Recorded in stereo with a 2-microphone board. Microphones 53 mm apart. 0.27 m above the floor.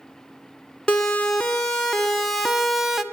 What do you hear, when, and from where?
0.9 s a siren: 20° left (ahead or behind), 2.5 m; by 3.0 s 10° right (ahead or behind), 1.3 m